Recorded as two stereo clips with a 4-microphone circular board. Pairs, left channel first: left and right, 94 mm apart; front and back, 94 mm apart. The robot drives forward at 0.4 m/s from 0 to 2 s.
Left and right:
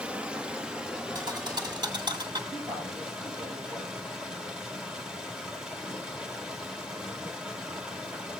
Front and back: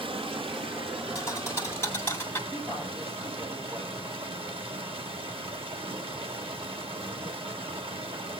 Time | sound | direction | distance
0.0 | running water | 170° right | 1.2 m
1.1 | a thud | 55° right | 2.0 m
2.5 | a woman speaking | 130° right | 6.5 m